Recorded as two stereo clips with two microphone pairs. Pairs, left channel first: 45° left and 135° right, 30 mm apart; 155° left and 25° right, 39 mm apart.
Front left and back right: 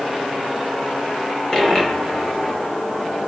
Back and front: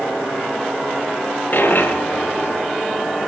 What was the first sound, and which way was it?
A dropped coin, 110° left.